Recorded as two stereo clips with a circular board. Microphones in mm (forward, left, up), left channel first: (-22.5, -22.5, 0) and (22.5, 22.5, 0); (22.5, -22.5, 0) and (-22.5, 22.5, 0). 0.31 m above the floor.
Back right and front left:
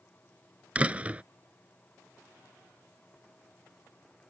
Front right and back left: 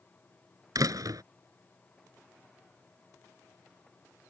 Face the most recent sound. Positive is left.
turn(degrees=115)